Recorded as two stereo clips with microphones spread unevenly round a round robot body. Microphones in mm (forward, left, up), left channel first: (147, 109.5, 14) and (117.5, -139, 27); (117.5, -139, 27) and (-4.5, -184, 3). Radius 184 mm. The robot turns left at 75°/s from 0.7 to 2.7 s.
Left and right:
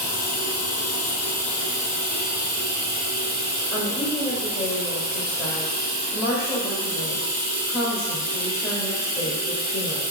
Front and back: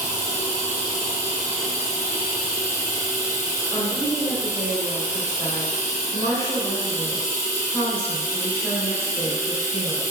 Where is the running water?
95° left, 1.5 m; by 10.1 s 55° right, 1.5 m.